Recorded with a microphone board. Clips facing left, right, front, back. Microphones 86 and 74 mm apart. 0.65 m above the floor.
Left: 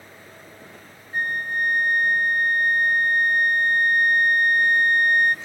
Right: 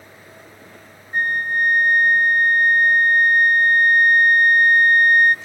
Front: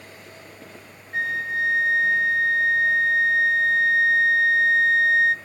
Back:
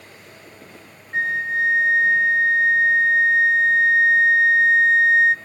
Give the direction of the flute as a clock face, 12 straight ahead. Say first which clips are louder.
Right 5 dB, back 3 dB; 4 o'clock.